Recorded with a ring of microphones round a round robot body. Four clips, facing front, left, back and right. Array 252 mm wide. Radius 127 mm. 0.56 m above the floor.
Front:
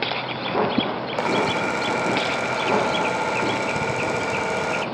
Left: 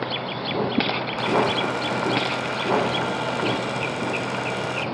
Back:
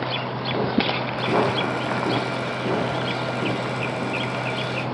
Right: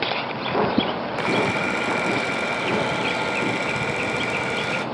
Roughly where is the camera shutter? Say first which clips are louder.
Left 2 dB, even; ahead.